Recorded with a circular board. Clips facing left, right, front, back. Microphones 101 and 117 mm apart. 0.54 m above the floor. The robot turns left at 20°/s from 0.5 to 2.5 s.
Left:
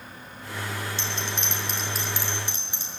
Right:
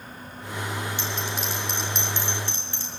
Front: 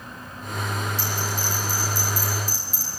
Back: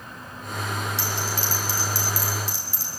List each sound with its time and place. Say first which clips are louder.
1.0 s a bell: right 2 dB, even; 165° right, 6 m; by 2.9 s 165° left, 6 m